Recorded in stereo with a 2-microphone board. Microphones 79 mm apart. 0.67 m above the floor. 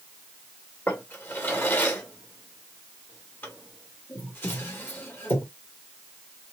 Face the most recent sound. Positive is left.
turn(degrees=25)  # may be behind; listen again after turning